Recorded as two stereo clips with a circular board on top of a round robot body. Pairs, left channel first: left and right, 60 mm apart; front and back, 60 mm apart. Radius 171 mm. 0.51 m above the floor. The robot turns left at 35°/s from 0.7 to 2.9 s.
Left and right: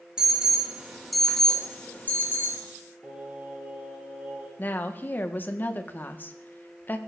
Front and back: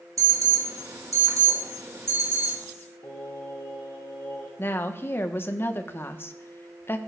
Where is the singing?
20° right, 4 m.